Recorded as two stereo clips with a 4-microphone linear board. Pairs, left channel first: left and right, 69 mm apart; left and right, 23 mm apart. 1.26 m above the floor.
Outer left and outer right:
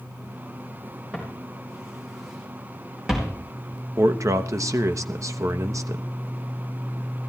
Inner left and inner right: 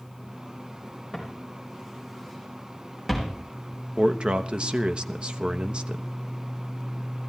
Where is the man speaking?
55° right (ahead or behind), 1.0 m.